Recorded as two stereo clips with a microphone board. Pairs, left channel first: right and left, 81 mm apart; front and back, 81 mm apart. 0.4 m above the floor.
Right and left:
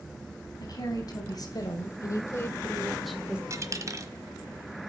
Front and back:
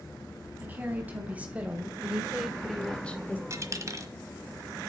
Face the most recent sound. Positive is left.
turn(degrees=135)